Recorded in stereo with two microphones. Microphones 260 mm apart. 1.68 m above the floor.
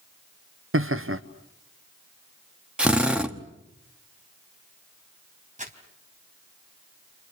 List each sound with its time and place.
0.7 s laughter: 55° right (ahead or behind), 0.8 m
2.8 s a drill: 5° right (ahead or behind), 1.3 m
5.6 s crumpling: 30° right (ahead or behind), 3 m